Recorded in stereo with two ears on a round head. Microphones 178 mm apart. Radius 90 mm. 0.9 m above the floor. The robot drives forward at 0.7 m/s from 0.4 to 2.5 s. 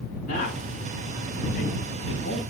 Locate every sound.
0.3 s a man speaking: 40° left (ahead or behind), 6 m; by 2.4 s 50° left (ahead or behind), 5 m